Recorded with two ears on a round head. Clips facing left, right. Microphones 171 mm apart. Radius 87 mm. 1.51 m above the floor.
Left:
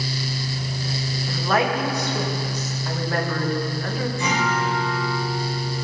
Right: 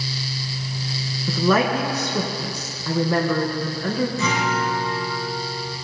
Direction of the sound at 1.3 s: 85° right.